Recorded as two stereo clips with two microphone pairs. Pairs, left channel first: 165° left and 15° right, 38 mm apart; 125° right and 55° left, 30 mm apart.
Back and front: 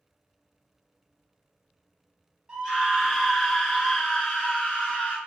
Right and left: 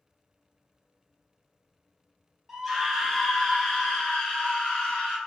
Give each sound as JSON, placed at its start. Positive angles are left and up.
{"t": 2.5, "sound": "a scream", "azimuth_deg": -5, "distance_m": 0.9}